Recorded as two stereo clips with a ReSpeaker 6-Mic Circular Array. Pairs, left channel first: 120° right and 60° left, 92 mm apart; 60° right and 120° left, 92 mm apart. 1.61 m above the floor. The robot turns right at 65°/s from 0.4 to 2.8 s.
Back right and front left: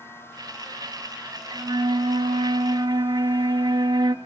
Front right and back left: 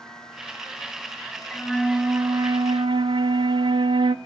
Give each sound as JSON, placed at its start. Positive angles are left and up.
{"t": 1.5, "sound": "a flute", "azimuth_deg": 15, "distance_m": 0.9}